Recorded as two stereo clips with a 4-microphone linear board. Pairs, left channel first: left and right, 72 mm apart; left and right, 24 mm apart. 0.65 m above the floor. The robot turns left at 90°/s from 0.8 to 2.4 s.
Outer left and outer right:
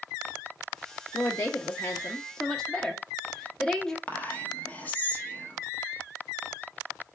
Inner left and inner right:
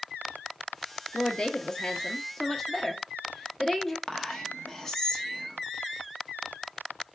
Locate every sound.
1.1 s a woman speaking: 25° left (ahead or behind), 0.5 m; by 4.0 s 5° left (ahead or behind), 0.5 m
4.1 s whispering: 25° left (ahead or behind), 0.9 m